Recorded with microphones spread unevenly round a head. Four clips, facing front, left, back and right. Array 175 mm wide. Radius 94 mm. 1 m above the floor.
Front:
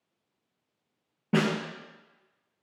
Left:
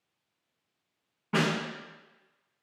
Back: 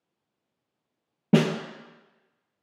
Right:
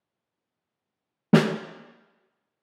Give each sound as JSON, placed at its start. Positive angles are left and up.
{"t": 1.3, "sound": "a snare drum", "azimuth_deg": -125, "distance_m": 0.5}